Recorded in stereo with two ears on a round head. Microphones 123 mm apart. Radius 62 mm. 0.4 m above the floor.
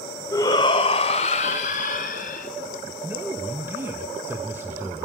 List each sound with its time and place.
0.3 s a shout: 20° left (ahead or behind), 1.7 m; by 2.5 s 65° left (ahead or behind), 3.5 m
3.0 s a man speaking: 15° right (ahead or behind), 1.5 m